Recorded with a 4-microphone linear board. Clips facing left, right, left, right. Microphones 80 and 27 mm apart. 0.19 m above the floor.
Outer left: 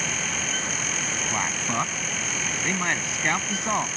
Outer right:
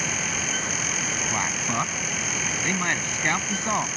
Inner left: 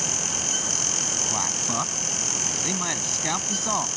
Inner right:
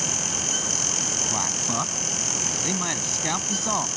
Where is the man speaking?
Centre (ahead or behind).